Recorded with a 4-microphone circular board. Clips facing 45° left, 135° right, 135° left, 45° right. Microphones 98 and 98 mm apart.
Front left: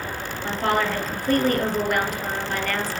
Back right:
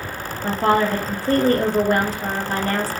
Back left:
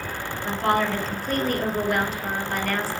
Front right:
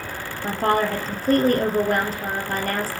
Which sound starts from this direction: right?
A woman speaking, at 0.4 s.